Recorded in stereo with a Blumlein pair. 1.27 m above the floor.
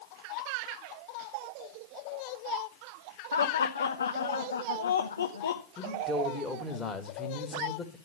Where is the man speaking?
15° left, 1.8 m.